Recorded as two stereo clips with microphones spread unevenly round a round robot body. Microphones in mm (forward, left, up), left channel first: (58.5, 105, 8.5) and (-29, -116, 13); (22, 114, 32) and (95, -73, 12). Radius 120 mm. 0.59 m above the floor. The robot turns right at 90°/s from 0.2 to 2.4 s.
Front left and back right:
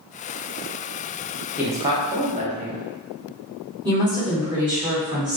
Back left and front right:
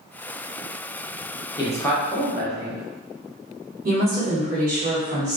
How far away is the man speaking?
About 0.6 m.